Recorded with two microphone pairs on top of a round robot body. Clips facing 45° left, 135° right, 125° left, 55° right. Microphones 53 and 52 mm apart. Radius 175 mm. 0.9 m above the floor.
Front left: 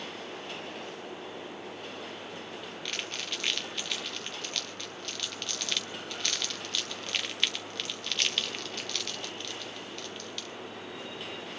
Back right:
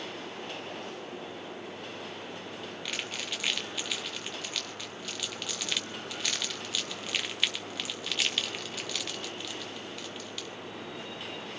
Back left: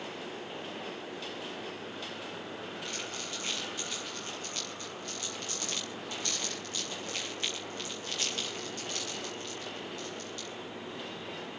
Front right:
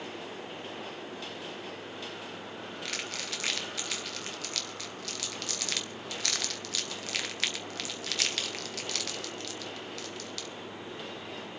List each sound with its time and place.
2.9 s crumpling: 55° right, 0.6 m